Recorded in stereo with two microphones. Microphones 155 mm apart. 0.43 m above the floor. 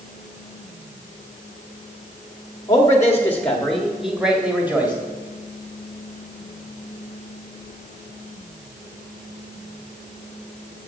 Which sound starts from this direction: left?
A man speaking, at 2.7 s.